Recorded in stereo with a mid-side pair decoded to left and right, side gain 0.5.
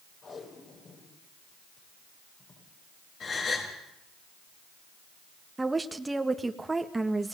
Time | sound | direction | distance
0.2 | tape being pulled | 50° left | 9.5 m
3.2 | a gasp | 50° left | 8 m
5.6 | a woman speaking | 15° right | 1.9 m